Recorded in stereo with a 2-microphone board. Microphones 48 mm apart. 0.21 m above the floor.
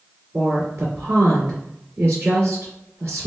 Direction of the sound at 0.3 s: 45° right (ahead or behind).